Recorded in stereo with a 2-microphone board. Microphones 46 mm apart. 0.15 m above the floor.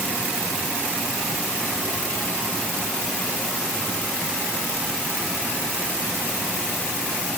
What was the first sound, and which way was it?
Only background noise.